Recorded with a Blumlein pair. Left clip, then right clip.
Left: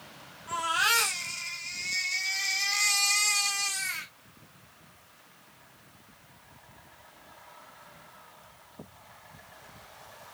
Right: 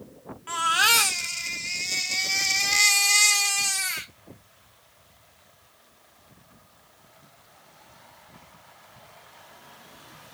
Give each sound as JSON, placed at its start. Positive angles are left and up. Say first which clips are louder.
{"t": 0.5, "sound": "a baby crying", "louder": "right 5 dB", "azimuth_deg": -45, "distance_m": 1.1}